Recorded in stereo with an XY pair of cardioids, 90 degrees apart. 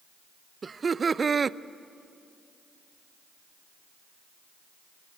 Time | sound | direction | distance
0.6 | laughter | 40° right | 0.6 m